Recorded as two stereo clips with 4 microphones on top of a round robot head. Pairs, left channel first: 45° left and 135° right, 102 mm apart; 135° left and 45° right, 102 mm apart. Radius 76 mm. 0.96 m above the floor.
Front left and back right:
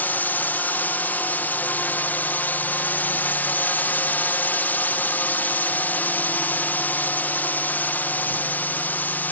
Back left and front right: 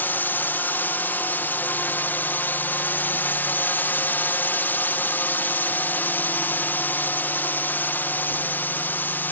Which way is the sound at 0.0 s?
90° left.